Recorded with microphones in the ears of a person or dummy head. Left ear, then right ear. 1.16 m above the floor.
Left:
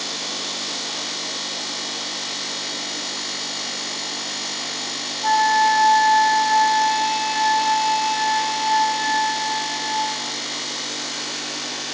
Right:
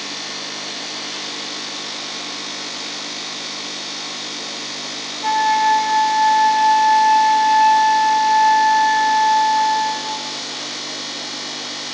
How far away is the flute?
About 8.5 m.